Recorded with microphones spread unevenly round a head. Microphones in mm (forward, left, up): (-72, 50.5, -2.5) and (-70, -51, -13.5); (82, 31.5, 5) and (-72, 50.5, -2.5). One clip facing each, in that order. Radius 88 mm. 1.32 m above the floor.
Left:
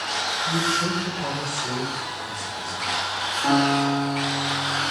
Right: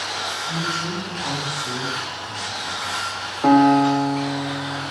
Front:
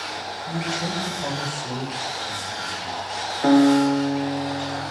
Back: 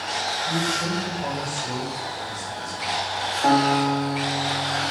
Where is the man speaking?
80° left, 7 m; by 3.0 s 60° left, 6 m.